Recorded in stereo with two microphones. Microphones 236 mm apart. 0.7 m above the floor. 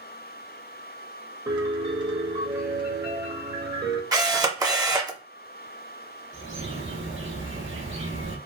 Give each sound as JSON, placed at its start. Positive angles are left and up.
{"t": 1.5, "sound": "a piano", "side_deg": -15, "distance_m": 0.9}
{"t": 4.1, "sound": "a camera shutter", "side_deg": -15, "distance_m": 0.6}
{"t": 6.3, "sound": "a bird", "side_deg": -60, "distance_m": 1.0}